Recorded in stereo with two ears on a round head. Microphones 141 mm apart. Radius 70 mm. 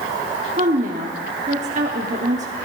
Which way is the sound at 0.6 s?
50° right (ahead or behind).